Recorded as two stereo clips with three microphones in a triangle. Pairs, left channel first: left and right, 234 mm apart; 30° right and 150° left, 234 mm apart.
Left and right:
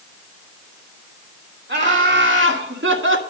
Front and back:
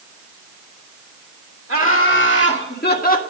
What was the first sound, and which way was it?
Laughter, 55° right.